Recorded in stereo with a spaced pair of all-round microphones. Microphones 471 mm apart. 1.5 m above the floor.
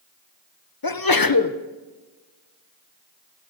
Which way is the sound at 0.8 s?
45° left (ahead or behind).